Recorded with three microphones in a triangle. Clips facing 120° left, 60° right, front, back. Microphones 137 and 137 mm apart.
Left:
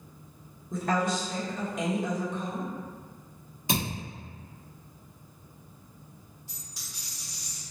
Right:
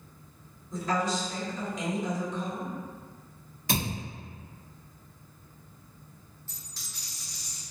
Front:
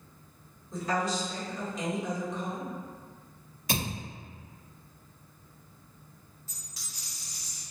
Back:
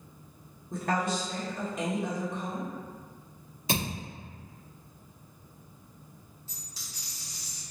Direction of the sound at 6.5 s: Straight behind.